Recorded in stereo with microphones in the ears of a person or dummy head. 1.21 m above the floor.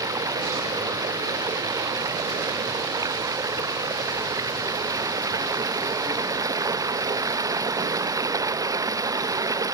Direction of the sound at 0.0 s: 20° right (ahead or behind).